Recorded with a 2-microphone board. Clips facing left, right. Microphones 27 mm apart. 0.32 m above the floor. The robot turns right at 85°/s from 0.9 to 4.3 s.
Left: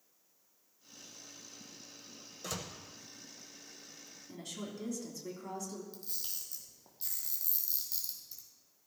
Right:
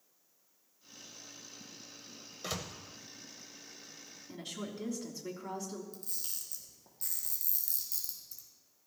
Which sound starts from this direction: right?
A door slam, at 2.4 s.